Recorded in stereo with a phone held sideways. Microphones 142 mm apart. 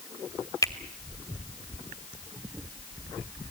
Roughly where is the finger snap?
Left.